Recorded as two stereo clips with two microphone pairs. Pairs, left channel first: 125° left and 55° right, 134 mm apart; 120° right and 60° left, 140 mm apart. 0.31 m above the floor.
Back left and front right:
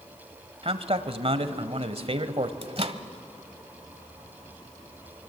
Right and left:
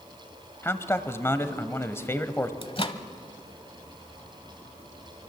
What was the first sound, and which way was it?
A man speaking, 55° right.